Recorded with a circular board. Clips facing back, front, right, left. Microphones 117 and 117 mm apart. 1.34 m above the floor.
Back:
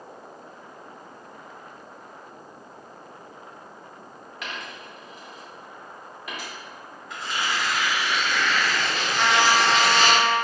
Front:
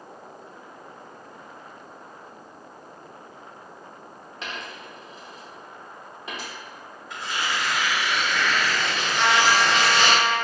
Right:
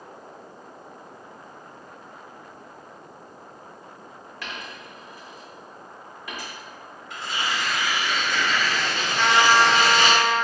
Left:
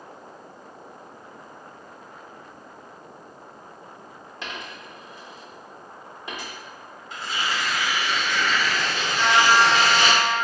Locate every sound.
4.4 s a dropped coin: 40° left, 0.7 m
7.1 s tearing paper: 90° right, 1.4 m
9.2 s a trumpet: 80° right, 1.3 m